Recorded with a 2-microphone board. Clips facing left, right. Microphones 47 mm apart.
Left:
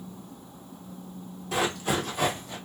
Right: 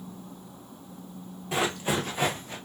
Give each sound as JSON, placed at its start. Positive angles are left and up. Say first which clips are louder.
{"t": 1.5, "sound": "running footsteps", "louder": "even", "side_deg": -25, "distance_m": 1.4}